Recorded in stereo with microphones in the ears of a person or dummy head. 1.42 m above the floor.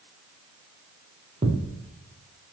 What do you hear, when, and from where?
1.4 s a thud: 30° right (ahead or behind), 5 m